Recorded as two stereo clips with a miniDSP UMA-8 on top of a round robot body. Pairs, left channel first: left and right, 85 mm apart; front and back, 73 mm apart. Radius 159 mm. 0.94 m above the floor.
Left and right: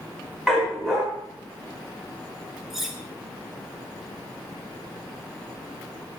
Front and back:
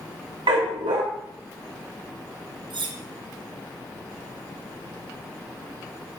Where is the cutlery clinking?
175° right, 0.8 m.